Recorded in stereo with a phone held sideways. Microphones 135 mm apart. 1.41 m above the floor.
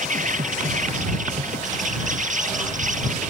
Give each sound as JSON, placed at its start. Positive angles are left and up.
{"t": 0.0, "sound": "an insect", "side_deg": -70}